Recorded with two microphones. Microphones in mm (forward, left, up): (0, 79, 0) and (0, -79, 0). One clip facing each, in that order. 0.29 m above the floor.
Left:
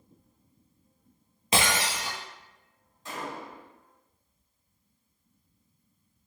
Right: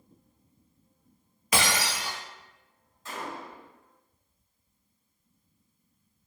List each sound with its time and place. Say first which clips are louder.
1.5 s breaking glass: left 1 dB; 30° left (ahead or behind), 0.8 m
3.0 s a gunshot: left 1 dB; 20° left (ahead or behind), 1.0 m